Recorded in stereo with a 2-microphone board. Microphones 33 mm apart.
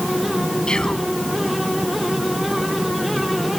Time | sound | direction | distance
0.7 | whispering | 25° left (ahead or behind) | ?